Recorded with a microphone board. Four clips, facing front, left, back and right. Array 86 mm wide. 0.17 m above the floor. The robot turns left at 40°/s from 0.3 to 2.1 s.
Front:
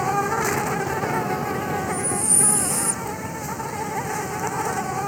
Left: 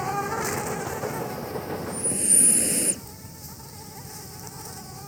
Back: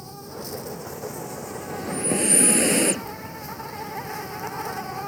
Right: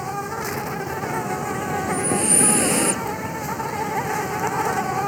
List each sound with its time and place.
0.0 s an insect: straight ahead; by 5.1 s 70° right
1.8 s breathing: 135° right; by 3.0 s 145° right